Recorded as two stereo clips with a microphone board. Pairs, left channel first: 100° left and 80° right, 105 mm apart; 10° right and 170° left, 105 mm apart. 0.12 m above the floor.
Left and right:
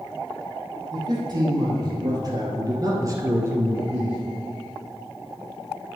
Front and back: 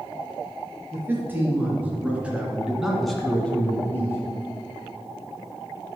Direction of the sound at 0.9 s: 125° right.